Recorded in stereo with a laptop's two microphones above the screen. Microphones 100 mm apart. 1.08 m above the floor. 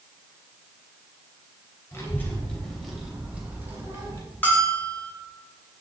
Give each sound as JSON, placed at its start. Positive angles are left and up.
{"t": 1.9, "sound": "a child speaking", "side_deg": 25, "distance_m": 3.0}
{"t": 4.4, "sound": "a bell", "side_deg": 20, "distance_m": 2.5}